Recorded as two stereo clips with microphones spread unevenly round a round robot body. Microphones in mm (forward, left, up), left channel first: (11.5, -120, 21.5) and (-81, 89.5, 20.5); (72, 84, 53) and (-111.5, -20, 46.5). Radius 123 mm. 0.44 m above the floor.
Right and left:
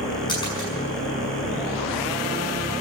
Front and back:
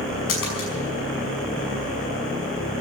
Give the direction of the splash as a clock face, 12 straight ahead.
12 o'clock.